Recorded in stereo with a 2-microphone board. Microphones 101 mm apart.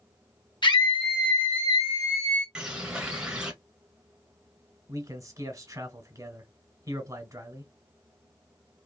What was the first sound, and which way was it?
A scream, 50° left (ahead or behind).